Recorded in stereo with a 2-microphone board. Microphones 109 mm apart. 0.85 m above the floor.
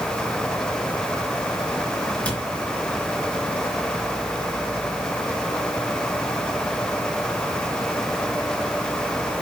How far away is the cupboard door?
About 3.5 m.